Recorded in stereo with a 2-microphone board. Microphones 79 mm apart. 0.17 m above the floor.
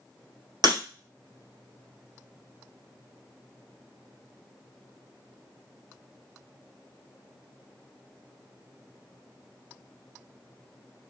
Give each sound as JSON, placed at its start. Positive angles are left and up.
{"t": 0.6, "sound": "breaking glass", "side_deg": -55, "distance_m": 1.7}